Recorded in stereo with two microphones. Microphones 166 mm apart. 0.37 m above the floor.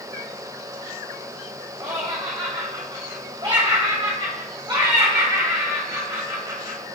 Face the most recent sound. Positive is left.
turn(degrees=-30)  # may be behind; listen again after turning